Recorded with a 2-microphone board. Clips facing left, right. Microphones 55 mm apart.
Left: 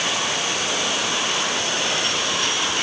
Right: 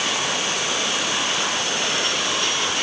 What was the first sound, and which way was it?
Only background noise.